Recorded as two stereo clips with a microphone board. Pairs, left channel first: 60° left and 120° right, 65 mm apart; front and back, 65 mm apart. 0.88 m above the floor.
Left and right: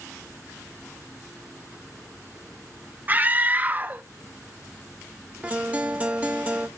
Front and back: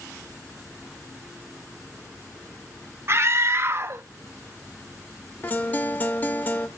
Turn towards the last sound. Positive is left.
turn(degrees=-55)